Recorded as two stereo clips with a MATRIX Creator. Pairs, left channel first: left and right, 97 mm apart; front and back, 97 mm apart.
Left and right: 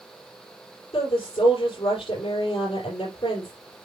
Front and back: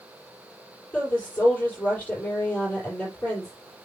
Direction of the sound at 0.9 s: 75° left.